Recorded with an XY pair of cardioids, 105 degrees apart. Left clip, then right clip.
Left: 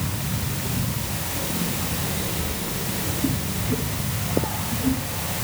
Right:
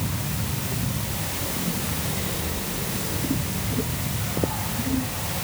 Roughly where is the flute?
I don't hear a flute.